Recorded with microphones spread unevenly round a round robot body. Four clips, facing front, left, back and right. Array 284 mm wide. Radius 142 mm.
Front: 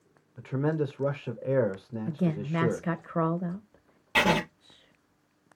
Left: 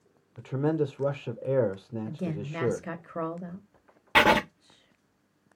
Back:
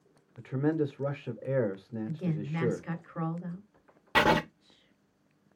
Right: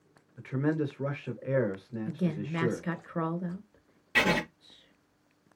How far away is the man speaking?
About 0.8 m.